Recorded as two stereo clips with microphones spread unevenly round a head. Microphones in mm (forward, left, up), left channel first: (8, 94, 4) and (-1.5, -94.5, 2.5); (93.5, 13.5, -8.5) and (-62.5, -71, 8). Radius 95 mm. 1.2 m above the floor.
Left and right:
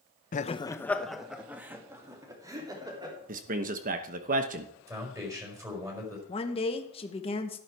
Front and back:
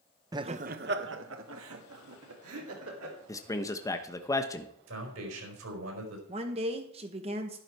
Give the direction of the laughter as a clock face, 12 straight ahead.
7 o'clock.